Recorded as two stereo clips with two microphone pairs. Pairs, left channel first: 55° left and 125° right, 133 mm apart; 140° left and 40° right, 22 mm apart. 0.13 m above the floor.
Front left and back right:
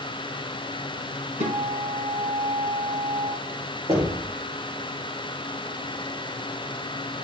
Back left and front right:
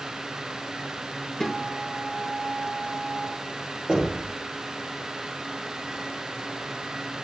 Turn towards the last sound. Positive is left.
turn(degrees=-80)